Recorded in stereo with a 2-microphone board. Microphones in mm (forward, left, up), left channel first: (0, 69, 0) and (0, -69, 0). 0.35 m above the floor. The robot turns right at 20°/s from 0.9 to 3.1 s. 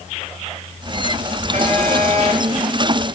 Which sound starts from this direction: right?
A phone buzzing, at 1.5 s.